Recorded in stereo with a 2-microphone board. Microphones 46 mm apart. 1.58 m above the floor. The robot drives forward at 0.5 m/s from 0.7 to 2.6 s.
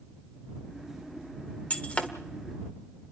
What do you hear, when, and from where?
1.7 s breaking glass: 30° left (ahead or behind), 1.4 m